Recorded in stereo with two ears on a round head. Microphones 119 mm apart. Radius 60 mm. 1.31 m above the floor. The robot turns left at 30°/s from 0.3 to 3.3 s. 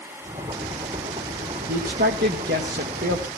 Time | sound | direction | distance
1.7 | a man speaking | 65° right | 1.8 m